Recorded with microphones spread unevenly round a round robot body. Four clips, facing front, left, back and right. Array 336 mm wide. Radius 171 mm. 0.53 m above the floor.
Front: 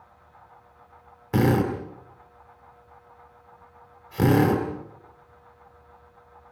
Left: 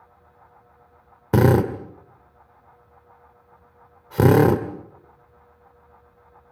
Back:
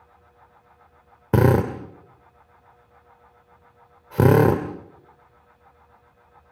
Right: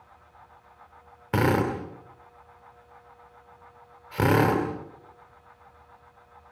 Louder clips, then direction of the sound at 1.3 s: Left 6 dB, back 3 dB; 140° left.